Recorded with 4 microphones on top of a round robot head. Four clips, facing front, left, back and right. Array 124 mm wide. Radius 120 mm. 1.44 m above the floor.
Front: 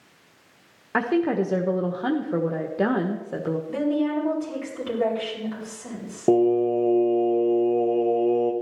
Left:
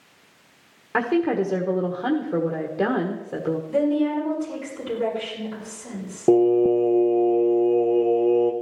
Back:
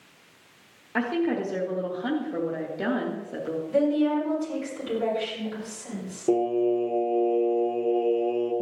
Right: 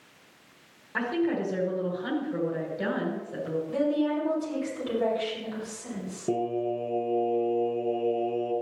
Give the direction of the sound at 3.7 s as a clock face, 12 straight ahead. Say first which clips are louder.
Left 5 dB, back 3 dB; 12 o'clock.